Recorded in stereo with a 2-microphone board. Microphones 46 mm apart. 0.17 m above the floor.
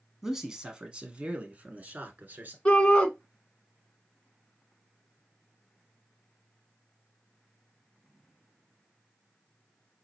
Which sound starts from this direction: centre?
A man speaking, at 0.2 s.